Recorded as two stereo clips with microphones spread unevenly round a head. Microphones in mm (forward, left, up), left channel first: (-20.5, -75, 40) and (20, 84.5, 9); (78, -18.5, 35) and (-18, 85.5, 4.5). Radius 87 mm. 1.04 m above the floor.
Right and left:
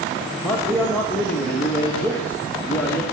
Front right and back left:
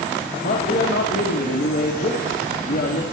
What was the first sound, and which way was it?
A man speaking, 20° right.